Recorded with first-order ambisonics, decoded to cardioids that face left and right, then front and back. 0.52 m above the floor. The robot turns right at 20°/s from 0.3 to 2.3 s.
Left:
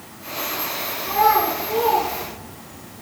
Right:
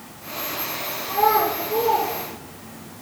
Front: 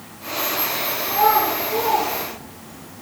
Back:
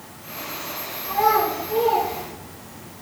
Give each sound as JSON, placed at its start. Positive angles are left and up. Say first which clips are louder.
{"t": 1.0, "sound": "a child speaking", "louder": "left 2 dB, front 1 dB", "azimuth_deg": 70, "distance_m": 4.5}